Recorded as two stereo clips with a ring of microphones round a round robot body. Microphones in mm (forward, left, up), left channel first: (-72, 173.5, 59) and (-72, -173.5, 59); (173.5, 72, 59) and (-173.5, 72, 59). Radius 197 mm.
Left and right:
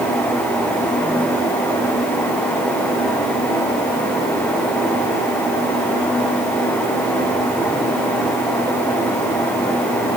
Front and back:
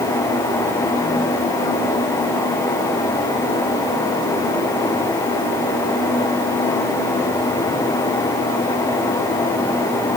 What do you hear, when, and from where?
Only background noise.